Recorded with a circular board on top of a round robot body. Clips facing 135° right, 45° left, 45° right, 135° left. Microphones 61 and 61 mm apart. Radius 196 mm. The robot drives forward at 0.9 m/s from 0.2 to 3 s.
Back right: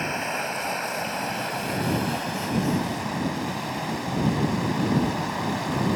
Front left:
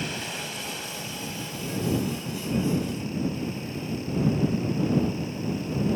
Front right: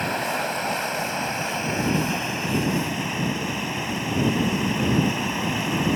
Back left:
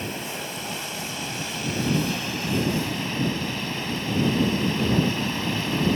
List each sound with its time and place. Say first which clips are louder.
0.0 s running water: back right 6 dB, front right 7 dB; 80° right; by 6.0 s 120° right